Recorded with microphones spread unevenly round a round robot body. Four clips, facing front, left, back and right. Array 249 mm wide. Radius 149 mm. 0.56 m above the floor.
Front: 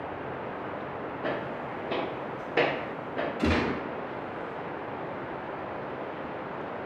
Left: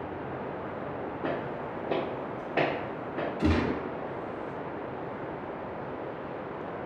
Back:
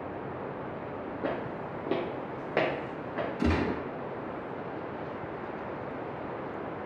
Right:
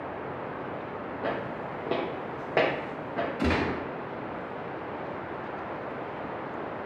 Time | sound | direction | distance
1.2 | footsteps | 165° left | 0.6 m
3.4 | a gunshot | 90° right | 1.0 m